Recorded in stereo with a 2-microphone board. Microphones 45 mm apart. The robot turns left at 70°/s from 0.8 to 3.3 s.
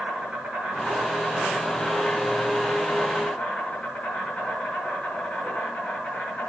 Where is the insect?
155° right, 3 m; by 6.5 s 30° left, 3 m.